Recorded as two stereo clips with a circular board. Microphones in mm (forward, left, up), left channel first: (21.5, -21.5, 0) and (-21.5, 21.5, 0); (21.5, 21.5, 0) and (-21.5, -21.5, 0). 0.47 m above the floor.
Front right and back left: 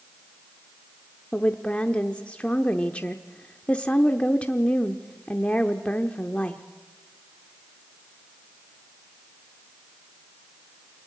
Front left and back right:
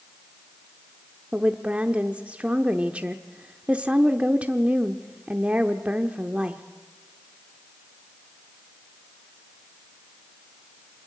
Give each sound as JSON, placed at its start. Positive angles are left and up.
{"t": 1.3, "sound": "a woman speaking", "azimuth_deg": -90, "distance_m": 0.8}